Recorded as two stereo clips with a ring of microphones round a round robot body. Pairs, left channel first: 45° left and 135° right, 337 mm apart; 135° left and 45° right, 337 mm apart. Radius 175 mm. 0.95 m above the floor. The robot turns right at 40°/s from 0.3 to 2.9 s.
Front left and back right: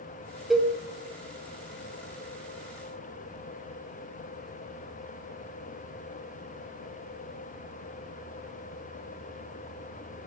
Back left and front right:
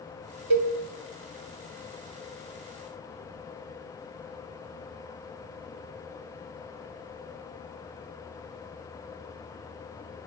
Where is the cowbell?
45° right, 0.6 m; by 0.7 s 40° right, 0.6 m.